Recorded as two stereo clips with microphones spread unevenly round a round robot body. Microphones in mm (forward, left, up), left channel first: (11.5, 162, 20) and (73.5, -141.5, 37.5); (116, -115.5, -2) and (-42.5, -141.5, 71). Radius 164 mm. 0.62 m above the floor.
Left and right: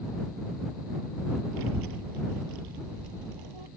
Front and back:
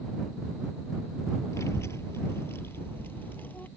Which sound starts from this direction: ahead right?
A child speaking, at 1.5 s.